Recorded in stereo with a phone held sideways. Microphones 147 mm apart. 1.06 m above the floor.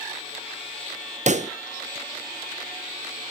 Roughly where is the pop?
Right.